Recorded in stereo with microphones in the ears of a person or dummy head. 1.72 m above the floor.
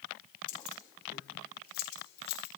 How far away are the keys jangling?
About 4 m.